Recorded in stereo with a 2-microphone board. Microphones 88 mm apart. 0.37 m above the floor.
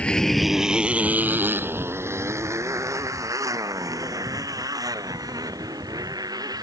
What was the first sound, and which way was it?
A motorcycle, 15° left (ahead or behind).